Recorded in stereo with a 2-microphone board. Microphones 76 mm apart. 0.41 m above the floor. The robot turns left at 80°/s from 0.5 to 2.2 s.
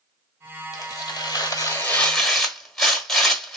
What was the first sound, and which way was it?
Tearing paper, 125° left.